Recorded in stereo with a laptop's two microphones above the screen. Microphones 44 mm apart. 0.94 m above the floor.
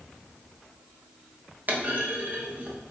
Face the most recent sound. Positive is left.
turn(degrees=-40)  # may be behind; listen again after turning